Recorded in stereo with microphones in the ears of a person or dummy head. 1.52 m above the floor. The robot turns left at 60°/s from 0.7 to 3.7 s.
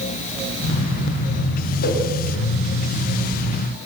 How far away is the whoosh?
About 7 m.